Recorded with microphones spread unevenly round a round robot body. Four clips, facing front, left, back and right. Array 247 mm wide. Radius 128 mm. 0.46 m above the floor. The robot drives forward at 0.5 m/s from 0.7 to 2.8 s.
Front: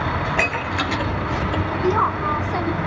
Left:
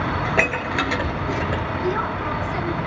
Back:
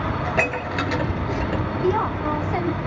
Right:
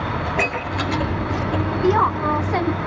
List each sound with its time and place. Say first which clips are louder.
0.2 s dishes clattering: left 1 dB, front 1 dB; 100° left, 6.5 m; by 1.6 s 105° left, 6.5 m
1.8 s a woman speaking: right 9 dB, front 2 dB; 65° right, 1.9 m; by 2.8 s 80° right, 1.7 m